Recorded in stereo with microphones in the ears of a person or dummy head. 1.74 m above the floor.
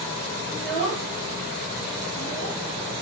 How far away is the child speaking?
About 1.4 m.